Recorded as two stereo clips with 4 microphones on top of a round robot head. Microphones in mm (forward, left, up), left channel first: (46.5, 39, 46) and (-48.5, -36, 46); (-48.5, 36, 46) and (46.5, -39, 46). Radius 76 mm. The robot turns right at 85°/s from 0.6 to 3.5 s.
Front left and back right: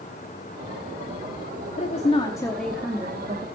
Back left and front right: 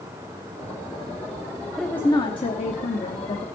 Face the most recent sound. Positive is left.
turn(degrees=-165)